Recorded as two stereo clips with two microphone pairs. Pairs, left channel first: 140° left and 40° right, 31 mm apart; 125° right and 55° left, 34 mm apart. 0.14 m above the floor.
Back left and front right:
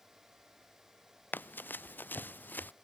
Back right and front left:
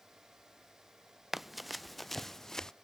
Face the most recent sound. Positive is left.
turn(degrees=155)